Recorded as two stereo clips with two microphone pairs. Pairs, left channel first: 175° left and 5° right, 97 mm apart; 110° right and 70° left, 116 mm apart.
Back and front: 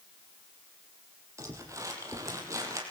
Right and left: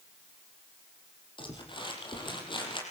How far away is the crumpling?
About 6 m.